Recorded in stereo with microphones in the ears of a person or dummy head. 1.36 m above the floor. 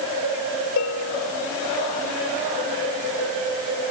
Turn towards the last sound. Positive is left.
turn(degrees=80)